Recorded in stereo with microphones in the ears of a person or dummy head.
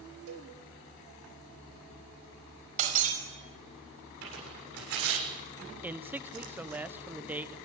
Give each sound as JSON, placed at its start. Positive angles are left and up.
{"t": 0.3, "sound": "a cowbell", "side_deg": -80, "distance_m": 4.0}
{"t": 2.8, "sound": "breaking glass", "side_deg": -45, "distance_m": 5.5}
{"t": 4.2, "sound": "tearing paper", "side_deg": -70, "distance_m": 7.0}
{"t": 5.8, "sound": "a man speaking", "side_deg": -10, "distance_m": 1.0}